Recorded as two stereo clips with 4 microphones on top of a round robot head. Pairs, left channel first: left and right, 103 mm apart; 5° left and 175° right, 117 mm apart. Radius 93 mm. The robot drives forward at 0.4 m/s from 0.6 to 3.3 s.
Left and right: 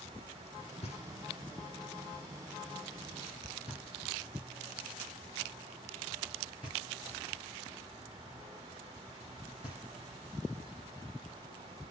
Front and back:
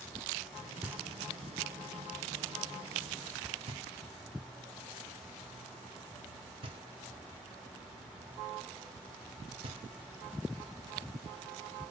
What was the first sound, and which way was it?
Knocking, 110° left.